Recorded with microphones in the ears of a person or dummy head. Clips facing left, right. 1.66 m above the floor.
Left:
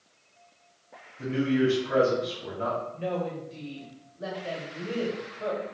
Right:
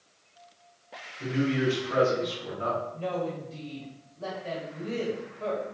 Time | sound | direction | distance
1.2 | a man speaking | 55° left (ahead or behind) | 2.5 m
2.9 | a woman speaking | 20° left (ahead or behind) | 1.9 m